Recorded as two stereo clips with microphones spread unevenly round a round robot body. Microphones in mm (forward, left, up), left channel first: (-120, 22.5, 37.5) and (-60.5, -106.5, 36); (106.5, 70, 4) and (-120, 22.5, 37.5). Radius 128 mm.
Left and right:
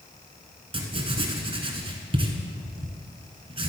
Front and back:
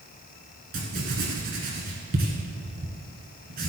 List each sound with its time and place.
0.7 s writing: 115° right, 1.6 m